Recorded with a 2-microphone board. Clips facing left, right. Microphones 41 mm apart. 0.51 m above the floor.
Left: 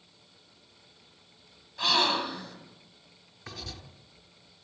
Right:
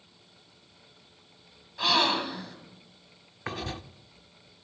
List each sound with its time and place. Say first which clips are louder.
1.8 s a gasp: right 1 dB; 5° right (ahead or behind), 3 m
3.5 s writing: right 8 dB; 40° right (ahead or behind), 0.9 m